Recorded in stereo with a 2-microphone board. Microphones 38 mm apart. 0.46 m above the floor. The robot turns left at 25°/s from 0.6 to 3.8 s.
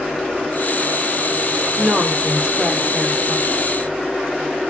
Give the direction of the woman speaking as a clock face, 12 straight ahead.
3 o'clock.